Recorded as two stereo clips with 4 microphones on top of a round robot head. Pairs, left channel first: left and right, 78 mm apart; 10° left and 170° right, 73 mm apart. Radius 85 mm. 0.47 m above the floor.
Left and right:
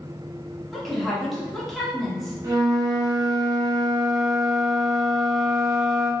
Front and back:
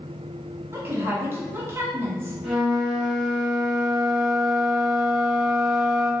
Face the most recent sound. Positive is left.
turn(degrees=-95)